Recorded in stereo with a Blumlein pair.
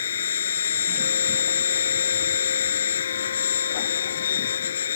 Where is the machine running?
65° left.